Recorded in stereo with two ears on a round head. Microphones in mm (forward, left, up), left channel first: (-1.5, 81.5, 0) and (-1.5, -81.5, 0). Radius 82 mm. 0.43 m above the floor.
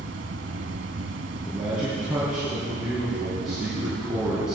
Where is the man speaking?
5° right (ahead or behind), 4 m.